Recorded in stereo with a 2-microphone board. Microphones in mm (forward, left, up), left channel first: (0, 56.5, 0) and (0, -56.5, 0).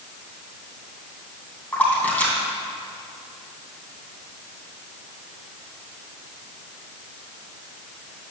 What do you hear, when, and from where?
1.7 s a splash: 15° left (ahead or behind), 3 m